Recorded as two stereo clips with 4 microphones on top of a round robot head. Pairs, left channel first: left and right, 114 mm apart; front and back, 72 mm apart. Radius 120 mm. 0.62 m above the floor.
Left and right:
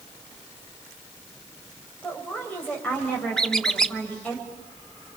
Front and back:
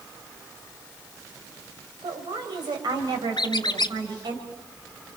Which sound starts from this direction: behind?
A woman speaking, at 2.0 s.